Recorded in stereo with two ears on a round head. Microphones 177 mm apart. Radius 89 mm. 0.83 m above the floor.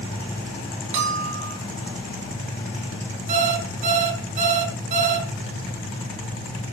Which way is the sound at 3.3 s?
40° right (ahead or behind).